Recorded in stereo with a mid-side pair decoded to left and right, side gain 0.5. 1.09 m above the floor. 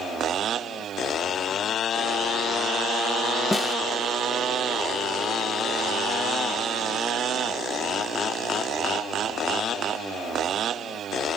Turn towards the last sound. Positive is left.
turn(degrees=15)